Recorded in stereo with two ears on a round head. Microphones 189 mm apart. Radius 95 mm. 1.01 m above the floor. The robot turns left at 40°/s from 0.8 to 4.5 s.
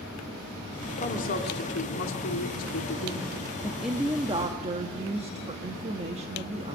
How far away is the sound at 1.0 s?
About 2.5 m.